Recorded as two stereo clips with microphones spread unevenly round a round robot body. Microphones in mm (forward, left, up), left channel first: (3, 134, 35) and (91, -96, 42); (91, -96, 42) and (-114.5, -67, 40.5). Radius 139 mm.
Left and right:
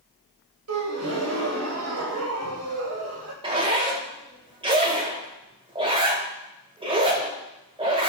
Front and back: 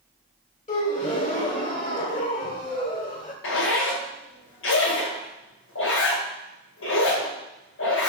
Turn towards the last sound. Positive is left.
turn(degrees=0)